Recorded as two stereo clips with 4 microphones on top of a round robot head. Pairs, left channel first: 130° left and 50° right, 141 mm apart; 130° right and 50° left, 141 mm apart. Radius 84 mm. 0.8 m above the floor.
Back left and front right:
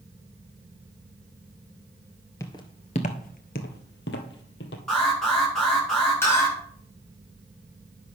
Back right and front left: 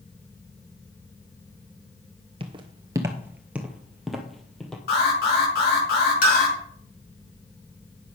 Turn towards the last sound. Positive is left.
turn(degrees=-155)